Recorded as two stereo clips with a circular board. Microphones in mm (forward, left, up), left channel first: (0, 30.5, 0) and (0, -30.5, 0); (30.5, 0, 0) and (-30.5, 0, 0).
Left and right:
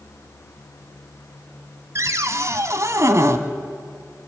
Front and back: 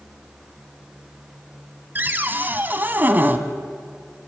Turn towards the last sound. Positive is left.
turn(degrees=-125)